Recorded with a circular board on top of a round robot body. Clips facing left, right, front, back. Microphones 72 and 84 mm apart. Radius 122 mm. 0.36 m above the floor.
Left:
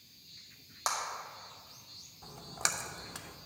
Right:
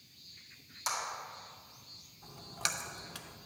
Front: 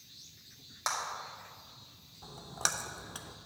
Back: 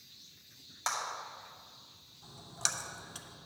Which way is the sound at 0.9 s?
75° left.